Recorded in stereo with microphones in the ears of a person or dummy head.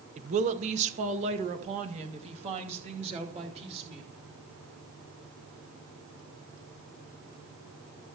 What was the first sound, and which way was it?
A woman speaking, 35° right (ahead or behind).